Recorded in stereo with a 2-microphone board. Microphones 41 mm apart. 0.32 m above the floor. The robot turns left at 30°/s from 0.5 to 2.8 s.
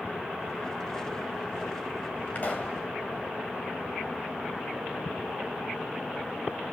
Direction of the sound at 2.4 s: 45° left (ahead or behind).